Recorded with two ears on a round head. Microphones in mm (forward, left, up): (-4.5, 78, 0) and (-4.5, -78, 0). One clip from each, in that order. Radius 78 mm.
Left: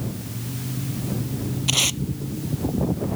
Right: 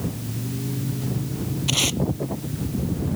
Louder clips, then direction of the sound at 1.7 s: Left 1 dB; 10° left (ahead or behind).